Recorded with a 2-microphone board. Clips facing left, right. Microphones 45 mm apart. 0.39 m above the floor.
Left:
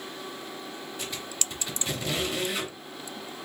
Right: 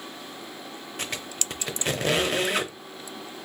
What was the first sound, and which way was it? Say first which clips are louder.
A squeak: right 4 dB; 65° right (ahead or behind).